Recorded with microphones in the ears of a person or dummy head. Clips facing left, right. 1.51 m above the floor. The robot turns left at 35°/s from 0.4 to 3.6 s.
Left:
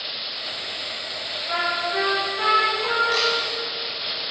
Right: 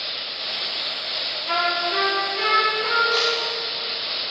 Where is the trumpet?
110° right, 5 m; by 3.0 s 160° right, 5 m.